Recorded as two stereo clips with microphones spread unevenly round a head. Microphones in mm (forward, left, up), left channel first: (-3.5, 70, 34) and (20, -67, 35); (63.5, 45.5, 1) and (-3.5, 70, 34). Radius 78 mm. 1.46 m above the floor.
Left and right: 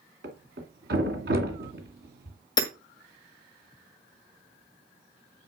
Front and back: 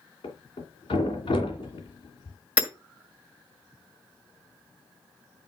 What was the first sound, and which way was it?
A thud, 90° right.